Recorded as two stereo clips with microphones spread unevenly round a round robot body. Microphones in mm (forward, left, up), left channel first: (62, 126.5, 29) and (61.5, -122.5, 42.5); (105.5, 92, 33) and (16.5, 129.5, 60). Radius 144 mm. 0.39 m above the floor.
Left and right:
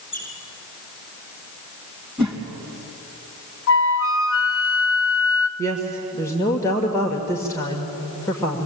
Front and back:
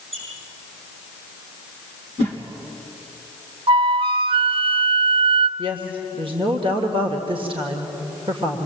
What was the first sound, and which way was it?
A squeak, 160° left.